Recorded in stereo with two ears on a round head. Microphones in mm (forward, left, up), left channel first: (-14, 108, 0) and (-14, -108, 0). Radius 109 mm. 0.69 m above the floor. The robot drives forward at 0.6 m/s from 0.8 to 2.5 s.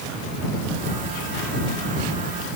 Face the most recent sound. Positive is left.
No sound to turn to.